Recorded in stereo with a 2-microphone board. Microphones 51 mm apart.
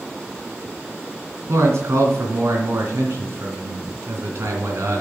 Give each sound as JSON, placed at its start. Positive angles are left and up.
{"t": 1.5, "sound": "a man speaking", "side_deg": -65, "distance_m": 3.0}